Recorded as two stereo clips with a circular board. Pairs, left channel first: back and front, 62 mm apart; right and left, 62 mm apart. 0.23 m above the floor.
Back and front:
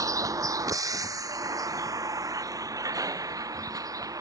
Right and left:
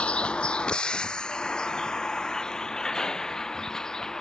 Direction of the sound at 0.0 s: 20° right.